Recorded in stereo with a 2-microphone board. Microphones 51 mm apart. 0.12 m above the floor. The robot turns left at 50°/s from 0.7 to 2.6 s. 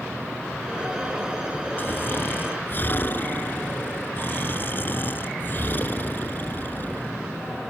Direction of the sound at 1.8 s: 115° left.